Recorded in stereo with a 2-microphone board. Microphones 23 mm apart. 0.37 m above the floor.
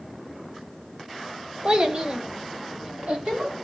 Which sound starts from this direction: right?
A child speaking, at 1.6 s.